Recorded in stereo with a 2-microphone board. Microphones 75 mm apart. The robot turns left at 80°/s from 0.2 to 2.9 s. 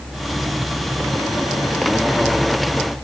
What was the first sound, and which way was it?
Only background noise.